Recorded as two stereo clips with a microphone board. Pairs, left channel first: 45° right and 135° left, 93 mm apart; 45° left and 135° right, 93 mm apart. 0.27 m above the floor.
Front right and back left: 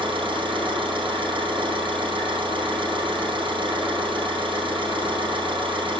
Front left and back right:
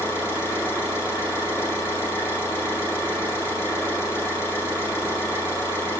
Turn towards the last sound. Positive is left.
turn(degrees=110)